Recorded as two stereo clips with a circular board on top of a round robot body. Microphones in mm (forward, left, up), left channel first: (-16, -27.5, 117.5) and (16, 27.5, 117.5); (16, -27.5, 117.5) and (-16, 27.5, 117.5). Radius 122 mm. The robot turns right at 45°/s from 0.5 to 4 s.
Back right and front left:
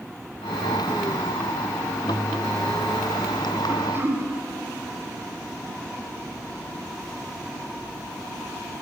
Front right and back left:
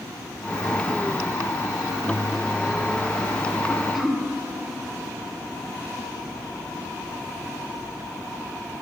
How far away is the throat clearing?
About 1.3 m.